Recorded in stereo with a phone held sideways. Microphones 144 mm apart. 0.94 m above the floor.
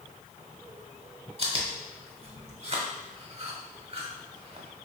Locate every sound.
1.4 s chewing: 45° right (ahead or behind), 0.9 m